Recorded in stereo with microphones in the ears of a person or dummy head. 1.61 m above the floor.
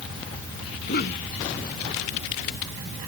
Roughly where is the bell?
I don't hear a bell.